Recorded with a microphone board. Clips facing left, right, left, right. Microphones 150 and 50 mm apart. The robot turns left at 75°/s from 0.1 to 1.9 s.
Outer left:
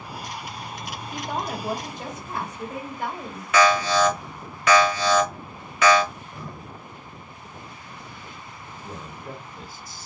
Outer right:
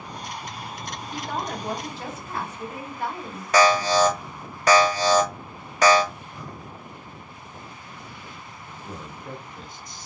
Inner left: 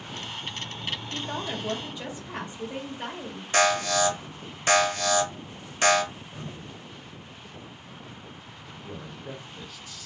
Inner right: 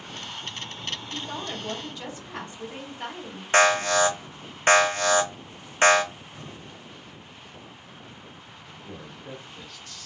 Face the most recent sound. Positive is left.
turn(degrees=5)  # may be behind; listen again after turning